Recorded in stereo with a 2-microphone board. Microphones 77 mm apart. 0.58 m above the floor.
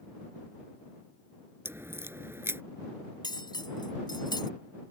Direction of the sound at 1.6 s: 35° right (ahead or behind).